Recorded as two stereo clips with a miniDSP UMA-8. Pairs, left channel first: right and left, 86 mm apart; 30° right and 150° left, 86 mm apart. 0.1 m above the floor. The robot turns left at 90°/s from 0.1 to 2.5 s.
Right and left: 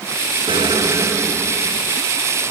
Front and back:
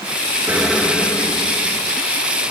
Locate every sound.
0.5 s an explosion: 80° left, 3.5 m; by 2.0 s 55° right, 3.5 m